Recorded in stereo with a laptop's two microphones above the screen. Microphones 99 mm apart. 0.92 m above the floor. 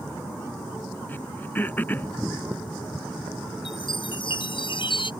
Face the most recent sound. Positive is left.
turn(degrees=65)  # may be behind; listen again after turning